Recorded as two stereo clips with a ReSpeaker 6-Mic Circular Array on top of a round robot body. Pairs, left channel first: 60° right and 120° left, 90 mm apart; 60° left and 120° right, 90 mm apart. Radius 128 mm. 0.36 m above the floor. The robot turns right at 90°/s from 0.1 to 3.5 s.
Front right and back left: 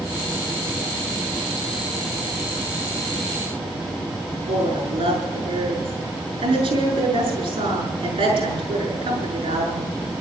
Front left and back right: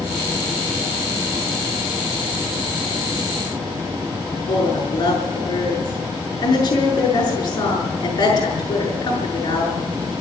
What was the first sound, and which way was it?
A woman speaking, 105° left.